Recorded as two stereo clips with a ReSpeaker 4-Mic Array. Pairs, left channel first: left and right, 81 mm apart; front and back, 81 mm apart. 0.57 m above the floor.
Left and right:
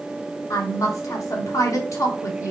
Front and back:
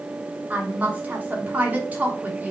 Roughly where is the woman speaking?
Behind left.